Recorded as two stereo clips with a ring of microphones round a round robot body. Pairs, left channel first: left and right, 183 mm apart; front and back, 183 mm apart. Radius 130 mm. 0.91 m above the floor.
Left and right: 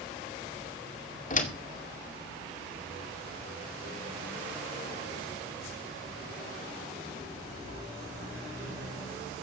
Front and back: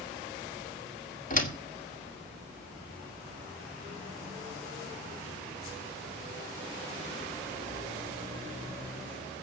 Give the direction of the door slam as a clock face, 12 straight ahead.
11 o'clock.